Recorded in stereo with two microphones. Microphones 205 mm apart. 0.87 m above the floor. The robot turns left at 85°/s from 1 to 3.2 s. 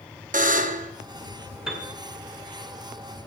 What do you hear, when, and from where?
0.3 s a buzzer: 40° right (ahead or behind), 0.8 m
1.7 s a piano: 5° right (ahead or behind), 1.9 m; by 1.9 s 20° left (ahead or behind), 1.9 m